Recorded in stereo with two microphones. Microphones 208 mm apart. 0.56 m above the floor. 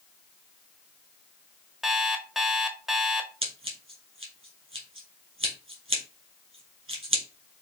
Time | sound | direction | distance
1.8 | an alarm clock | centre (ahead or behind) | 0.7 m
3.4 | scissors | 80° right | 2.5 m